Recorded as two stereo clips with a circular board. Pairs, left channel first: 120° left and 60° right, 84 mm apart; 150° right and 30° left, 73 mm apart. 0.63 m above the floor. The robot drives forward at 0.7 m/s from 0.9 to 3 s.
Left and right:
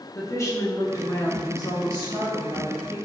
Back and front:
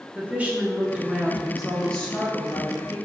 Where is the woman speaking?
90° left, 1.1 m; by 3.0 s 155° left, 1.8 m.